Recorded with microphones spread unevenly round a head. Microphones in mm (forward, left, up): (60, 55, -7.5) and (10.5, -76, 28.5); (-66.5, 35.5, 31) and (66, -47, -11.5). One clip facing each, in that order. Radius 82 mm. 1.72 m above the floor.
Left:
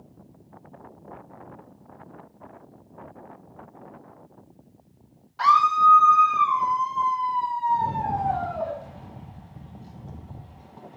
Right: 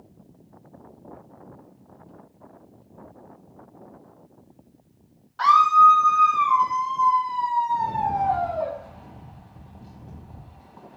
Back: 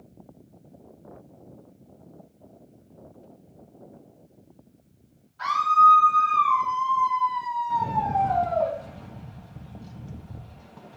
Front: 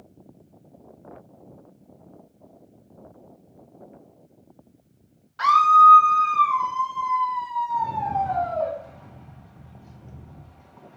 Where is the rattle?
145° left, 1.1 m.